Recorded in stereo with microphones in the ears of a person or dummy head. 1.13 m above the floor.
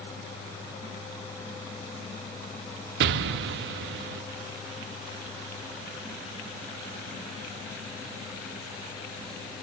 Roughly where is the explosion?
Right.